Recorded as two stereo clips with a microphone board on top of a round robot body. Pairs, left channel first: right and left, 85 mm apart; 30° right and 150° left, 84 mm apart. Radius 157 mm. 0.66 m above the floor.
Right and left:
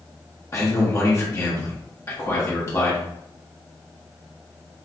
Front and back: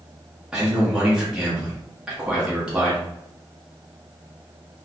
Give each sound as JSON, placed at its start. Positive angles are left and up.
{"t": 0.5, "sound": "a man speaking", "azimuth_deg": -130, "distance_m": 1.3}